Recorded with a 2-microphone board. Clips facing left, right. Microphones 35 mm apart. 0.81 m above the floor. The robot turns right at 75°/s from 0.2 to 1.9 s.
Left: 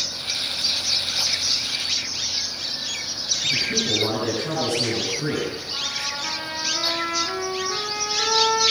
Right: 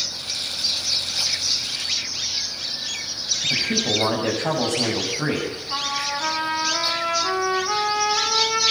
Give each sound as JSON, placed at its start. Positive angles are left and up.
{"t": 3.4, "sound": "a man speaking", "side_deg": -75, "distance_m": 6.5}
{"t": 5.7, "sound": "a trumpet", "side_deg": -80, "distance_m": 8.0}